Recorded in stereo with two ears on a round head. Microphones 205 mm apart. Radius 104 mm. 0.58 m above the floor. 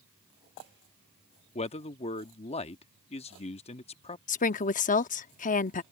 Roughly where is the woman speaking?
Left.